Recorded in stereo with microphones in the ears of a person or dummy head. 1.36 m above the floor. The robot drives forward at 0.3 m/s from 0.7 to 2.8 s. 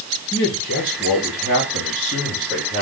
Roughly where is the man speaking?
Left.